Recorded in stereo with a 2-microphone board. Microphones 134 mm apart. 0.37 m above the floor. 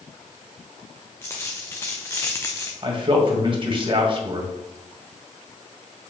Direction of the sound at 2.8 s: 40° right (ahead or behind).